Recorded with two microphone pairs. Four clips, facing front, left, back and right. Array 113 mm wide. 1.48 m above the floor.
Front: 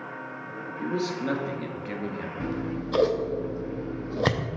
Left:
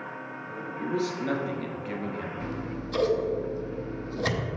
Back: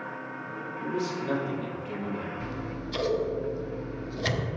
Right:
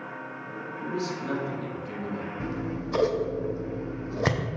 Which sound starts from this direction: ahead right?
Scissors, at 2.4 s.